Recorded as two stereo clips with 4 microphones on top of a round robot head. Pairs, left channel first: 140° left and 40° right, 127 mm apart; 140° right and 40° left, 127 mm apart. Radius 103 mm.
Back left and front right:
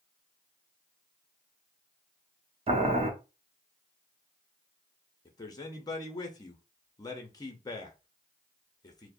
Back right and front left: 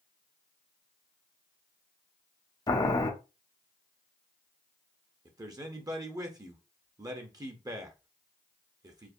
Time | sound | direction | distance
2.7 | boiling | 80° right | 0.8 m
5.2 | a man speaking | 90° left | 0.7 m